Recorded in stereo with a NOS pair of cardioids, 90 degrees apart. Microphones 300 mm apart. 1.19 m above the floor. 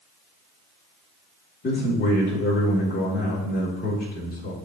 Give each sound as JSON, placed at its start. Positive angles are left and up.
{"t": 1.6, "sound": "a man speaking", "azimuth_deg": 35, "distance_m": 4.0}